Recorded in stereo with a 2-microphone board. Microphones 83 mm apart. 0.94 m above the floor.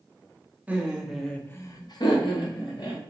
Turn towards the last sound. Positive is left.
turn(degrees=65)  # may be behind; listen again after turning